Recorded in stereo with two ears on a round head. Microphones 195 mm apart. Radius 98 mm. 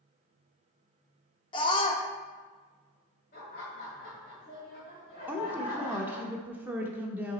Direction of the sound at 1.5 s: 20° left (ahead or behind).